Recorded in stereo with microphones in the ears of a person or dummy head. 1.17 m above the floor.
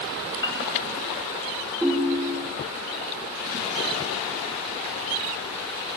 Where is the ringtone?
Centre (ahead or behind), 0.8 m.